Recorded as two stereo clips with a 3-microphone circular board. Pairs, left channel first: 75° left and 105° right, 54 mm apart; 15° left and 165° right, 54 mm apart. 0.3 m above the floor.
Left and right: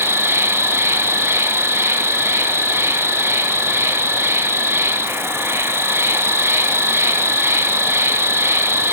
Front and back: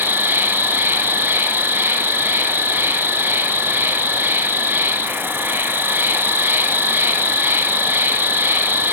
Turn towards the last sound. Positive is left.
turn(degrees=-125)